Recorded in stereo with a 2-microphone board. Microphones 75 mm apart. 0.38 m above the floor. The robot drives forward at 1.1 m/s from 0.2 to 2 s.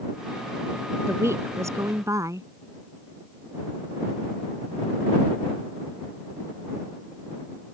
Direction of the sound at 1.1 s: 35° right (ahead or behind).